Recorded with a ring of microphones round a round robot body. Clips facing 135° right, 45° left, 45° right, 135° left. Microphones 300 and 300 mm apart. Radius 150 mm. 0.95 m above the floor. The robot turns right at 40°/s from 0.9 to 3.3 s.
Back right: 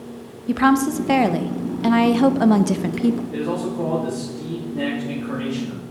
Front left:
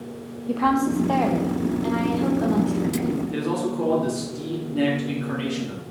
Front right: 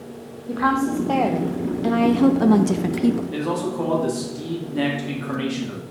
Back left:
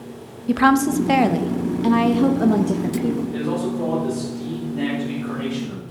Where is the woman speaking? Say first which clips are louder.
Back right 4 dB, back left 5 dB; 175° left, 0.7 m; by 3.2 s 95° right, 0.7 m.